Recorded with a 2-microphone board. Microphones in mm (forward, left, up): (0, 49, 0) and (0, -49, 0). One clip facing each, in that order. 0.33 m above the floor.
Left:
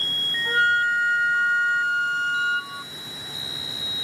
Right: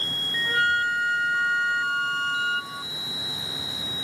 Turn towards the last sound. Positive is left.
turn(degrees=30)  # may be behind; listen again after turning